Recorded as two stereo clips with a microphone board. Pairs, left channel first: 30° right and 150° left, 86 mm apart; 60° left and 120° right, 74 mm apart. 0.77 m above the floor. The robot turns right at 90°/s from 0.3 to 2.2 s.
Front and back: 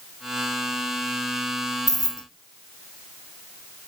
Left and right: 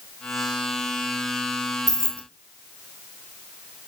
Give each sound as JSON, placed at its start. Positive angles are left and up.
{"t": 1.9, "sound": "keys jangling", "azimuth_deg": -85, "distance_m": 0.8}